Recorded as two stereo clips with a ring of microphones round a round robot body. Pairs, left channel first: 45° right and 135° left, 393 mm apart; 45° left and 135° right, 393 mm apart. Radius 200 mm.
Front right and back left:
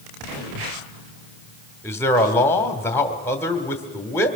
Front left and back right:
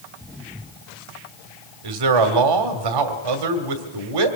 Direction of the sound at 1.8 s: 130° right.